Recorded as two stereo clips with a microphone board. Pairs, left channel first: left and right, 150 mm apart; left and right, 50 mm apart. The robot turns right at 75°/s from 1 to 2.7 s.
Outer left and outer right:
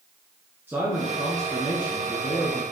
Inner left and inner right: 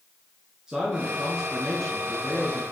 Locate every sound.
0.7 s a man speaking: 20° right, 1.6 m; by 2.6 s 105° left, 1.6 m